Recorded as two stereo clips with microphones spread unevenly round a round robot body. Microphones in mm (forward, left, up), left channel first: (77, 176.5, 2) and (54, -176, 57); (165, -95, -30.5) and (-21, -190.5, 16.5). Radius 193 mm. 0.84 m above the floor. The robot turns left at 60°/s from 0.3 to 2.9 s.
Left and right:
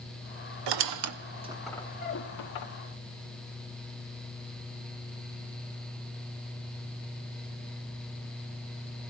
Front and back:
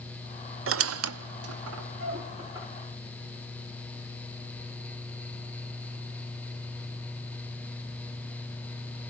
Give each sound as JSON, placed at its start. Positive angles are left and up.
{"t": 0.7, "sound": "a squeak", "azimuth_deg": -125, "distance_m": 0.9}